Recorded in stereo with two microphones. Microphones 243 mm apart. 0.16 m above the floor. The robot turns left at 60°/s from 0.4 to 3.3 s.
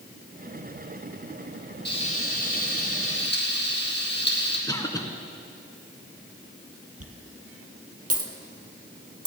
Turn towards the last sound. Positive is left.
turn(degrees=-75)  # may be behind; listen again after turning